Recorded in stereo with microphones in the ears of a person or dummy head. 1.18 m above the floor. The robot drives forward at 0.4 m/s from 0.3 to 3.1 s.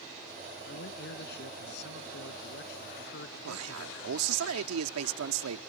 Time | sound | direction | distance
0.7 | a man speaking | 60° left (ahead or behind) | ?
3.4 | a man speaking | 90° right | ?